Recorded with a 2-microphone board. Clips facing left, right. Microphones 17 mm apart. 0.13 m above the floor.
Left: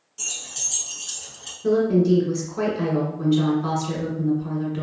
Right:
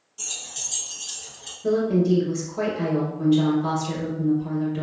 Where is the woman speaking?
20° left (ahead or behind), 1.5 m.